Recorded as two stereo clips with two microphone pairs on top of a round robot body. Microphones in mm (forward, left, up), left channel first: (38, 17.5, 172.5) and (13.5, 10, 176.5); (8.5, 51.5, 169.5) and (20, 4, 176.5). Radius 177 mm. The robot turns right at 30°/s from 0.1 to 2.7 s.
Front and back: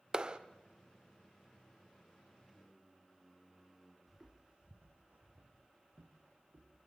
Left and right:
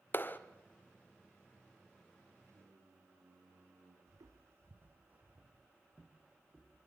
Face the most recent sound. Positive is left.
turn(degrees=-170)